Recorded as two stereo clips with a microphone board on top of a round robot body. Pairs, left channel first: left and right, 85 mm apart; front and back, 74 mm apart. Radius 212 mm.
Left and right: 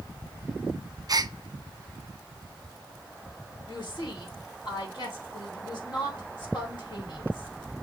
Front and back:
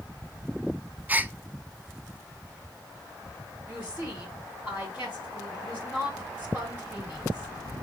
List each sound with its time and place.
1.1 s a gasp: 115° right, 0.6 m
3.7 s a woman speaking: 115° left, 3 m